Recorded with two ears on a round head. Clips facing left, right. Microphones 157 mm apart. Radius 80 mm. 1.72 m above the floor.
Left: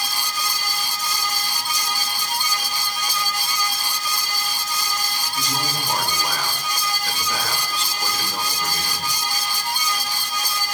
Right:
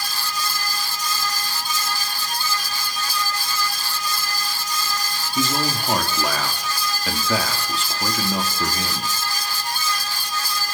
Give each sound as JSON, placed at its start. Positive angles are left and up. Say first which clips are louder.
{"t": 5.3, "sound": "a man speaking", "louder": "right 6 dB", "side_deg": -60, "distance_m": 4.5}